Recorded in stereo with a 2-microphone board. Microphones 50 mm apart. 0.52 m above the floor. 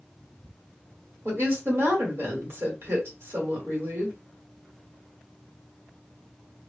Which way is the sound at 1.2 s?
50° right (ahead or behind).